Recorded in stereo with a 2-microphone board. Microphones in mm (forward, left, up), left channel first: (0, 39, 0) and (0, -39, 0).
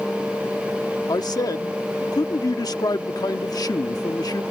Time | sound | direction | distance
1.1 | a man speaking | 55° left (ahead or behind) | ?